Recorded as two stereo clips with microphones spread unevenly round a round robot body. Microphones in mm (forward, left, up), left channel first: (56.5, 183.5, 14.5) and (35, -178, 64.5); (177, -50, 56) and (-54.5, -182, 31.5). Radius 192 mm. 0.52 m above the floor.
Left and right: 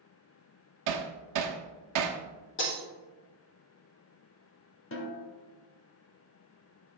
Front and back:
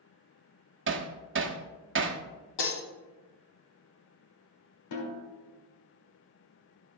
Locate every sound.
0.9 s hammering: 130° right, 1.2 m
2.6 s breaking glass: 25° left, 5 m
4.9 s a snare drum: 35° left, 2 m